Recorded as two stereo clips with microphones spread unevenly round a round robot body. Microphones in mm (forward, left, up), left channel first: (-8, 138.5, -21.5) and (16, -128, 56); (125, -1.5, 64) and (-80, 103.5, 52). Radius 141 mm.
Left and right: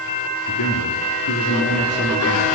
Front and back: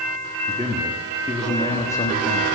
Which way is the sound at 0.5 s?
75° left.